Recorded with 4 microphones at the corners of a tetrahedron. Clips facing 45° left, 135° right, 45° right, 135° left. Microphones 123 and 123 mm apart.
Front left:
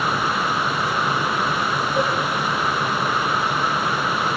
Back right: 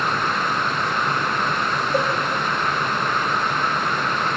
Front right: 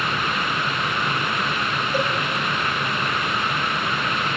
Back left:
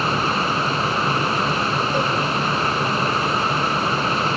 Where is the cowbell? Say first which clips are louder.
Back right 1 dB, front right 1 dB; 125° right, 7.5 m.